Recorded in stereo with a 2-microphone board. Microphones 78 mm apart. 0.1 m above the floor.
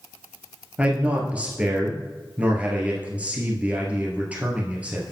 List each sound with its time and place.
0.8 s a man speaking: 15° right (ahead or behind), 1.6 m